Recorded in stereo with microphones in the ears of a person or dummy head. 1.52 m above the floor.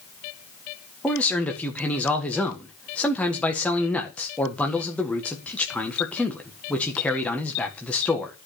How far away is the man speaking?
About 1.6 m.